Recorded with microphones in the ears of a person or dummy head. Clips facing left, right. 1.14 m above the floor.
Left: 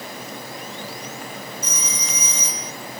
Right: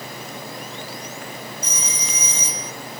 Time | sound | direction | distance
1.6 | a phone ringing | 35° right (ahead or behind) | ?